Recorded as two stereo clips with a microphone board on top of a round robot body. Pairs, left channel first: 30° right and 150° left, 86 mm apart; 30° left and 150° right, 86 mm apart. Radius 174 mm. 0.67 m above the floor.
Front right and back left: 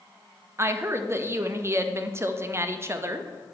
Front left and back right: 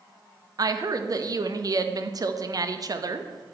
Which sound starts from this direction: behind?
A woman speaking, at 0.6 s.